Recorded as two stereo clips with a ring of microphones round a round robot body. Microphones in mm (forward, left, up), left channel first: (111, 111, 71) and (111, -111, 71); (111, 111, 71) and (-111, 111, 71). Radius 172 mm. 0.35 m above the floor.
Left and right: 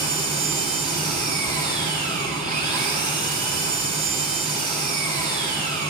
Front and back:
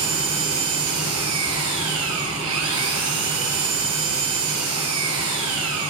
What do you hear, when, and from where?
0.0 s an engine running: 155° right, 3.5 m